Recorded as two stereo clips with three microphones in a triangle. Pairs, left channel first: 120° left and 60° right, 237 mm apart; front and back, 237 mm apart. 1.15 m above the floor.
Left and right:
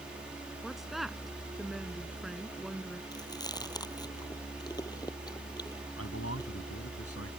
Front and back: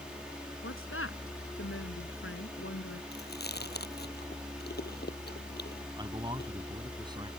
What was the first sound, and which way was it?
A woman speaking, 30° left.